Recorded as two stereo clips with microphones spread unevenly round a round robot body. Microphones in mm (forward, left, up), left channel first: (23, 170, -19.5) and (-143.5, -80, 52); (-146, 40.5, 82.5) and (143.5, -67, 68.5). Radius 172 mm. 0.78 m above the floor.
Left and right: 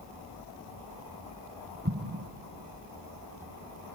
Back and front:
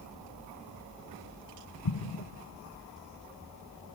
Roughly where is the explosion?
Behind.